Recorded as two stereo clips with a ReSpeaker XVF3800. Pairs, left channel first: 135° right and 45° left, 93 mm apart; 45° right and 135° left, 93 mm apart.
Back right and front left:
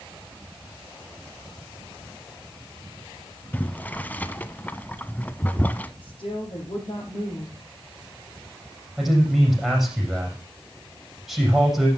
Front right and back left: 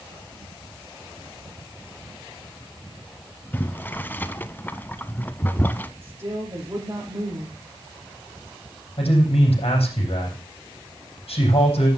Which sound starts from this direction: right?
Boiling, at 3.5 s.